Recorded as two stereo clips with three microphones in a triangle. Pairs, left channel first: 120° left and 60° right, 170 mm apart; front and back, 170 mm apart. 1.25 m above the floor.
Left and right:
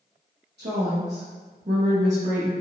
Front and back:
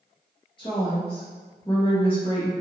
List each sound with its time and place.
0.6 s a woman speaking: 60° right, 1.0 m